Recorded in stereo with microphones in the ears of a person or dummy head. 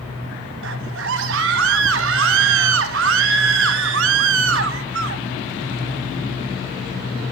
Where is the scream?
65° right (ahead or behind), 1.8 m.